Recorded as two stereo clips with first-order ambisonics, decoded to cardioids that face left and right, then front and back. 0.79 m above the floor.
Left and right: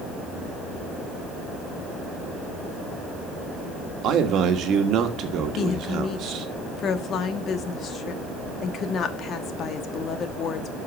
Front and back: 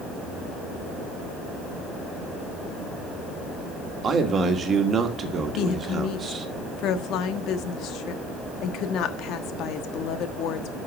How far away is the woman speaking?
About 1.2 m.